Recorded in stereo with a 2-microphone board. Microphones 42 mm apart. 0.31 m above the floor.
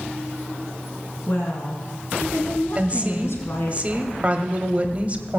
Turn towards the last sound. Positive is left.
turn(degrees=-30)  # may be behind; listen again after turning